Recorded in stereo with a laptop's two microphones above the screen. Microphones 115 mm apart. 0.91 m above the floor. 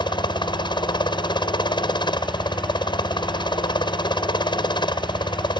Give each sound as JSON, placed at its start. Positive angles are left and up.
{"t": 0.0, "sound": "a helicopter", "side_deg": 40}